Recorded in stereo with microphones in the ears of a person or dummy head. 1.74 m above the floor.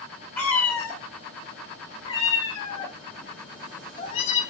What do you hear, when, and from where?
0.4 s a cat meowing: 10° left (ahead or behind), 2.5 m; by 4.4 s 45° left (ahead or behind), 3.5 m